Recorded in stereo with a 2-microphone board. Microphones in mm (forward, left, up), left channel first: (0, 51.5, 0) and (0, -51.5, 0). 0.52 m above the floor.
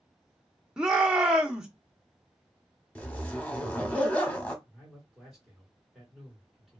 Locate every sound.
0.8 s a shout: 5° right (ahead or behind), 0.7 m
3.0 s a zipper: 10° left (ahead or behind), 0.8 m
4.7 s a man speaking: centre (ahead or behind), 1.4 m